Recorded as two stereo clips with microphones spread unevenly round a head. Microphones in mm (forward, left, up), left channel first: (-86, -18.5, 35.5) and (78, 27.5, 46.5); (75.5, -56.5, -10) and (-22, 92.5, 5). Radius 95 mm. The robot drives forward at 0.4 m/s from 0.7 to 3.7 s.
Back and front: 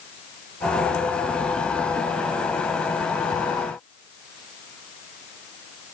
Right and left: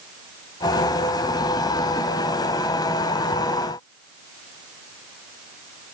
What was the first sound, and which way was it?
Only background noise.